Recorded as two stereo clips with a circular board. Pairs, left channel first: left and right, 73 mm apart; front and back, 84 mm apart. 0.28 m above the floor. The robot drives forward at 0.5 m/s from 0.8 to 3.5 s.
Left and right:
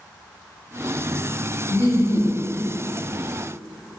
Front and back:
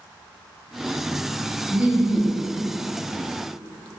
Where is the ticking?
I don't hear ticking.